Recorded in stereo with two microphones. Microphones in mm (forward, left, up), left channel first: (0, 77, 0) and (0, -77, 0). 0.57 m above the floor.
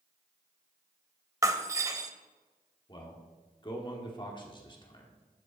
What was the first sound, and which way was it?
Breaking glass, 20° right (ahead or behind).